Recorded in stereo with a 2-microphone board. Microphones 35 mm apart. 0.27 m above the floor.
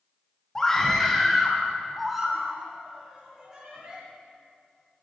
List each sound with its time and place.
0.6 s a scream: 15° left (ahead or behind), 1.7 m; by 4.0 s 15° right (ahead or behind), 3.5 m